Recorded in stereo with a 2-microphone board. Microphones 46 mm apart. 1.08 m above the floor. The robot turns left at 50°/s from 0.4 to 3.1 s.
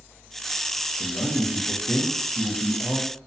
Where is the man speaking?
150° left, 0.6 m; by 3.2 s 45° left, 0.6 m.